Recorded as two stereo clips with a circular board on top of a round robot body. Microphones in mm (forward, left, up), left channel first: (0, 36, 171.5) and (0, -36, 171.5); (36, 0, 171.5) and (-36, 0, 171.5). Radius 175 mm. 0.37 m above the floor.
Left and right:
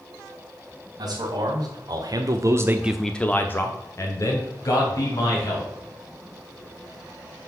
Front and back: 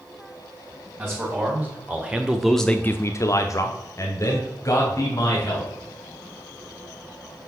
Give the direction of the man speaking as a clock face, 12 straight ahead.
4 o'clock.